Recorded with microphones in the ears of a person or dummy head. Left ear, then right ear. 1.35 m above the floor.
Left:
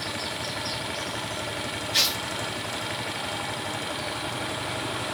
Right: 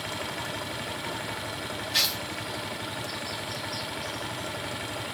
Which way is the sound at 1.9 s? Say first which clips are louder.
Left 2 dB; 15° right (ahead or behind).